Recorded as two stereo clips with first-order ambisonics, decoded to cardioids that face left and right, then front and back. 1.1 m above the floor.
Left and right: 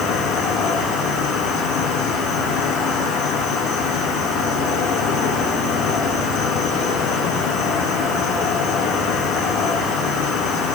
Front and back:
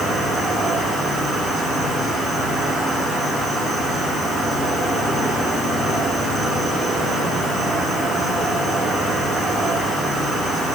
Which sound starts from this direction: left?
An insect, at 0.0 s.